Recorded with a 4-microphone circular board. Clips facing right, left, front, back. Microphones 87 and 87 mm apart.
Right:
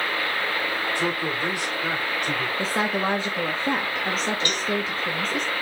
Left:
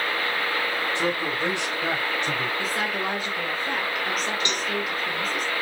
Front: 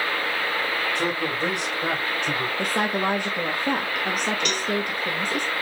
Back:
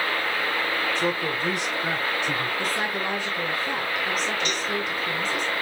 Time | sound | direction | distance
0.9 | a man speaking | 25° left | 4.5 m
2.6 | a woman speaking | 30° right | 2 m
4.5 | a cowbell | 20° left | 1.5 m